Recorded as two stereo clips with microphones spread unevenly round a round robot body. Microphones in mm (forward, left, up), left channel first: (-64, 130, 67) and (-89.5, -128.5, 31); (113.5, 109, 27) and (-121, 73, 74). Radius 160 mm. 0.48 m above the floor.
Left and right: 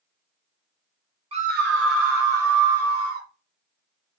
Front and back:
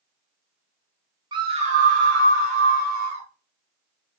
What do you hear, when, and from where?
1.3 s a scream: 95° right, 0.9 m; by 3.3 s 110° right, 3 m